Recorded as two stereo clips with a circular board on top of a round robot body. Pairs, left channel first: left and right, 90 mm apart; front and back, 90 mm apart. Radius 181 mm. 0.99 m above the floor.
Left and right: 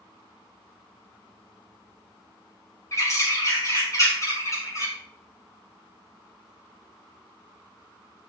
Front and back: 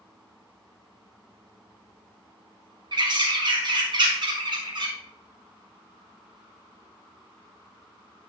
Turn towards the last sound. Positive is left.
turn(degrees=145)